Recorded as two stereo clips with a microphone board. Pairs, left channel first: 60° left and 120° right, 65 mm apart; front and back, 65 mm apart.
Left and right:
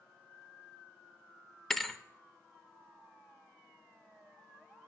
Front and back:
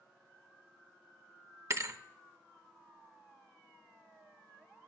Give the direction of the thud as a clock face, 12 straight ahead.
7 o'clock.